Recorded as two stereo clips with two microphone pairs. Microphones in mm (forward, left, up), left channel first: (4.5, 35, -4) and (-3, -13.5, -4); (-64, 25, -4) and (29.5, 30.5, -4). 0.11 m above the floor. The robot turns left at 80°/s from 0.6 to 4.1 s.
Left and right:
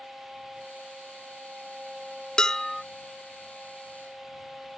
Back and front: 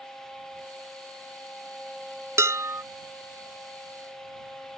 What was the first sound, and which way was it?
Dishes clattering, 25° left.